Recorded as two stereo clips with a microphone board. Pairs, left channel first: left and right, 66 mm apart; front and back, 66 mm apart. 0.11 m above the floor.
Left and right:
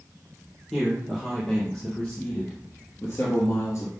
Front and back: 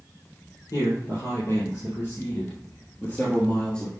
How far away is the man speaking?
About 2.5 m.